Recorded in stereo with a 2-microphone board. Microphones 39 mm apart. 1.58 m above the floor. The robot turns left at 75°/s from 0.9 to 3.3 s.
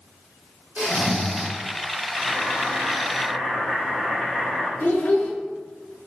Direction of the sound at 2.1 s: 110° right.